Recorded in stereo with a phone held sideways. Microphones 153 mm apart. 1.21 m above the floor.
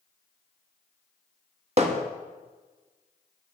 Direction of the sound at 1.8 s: 45° right (ahead or behind).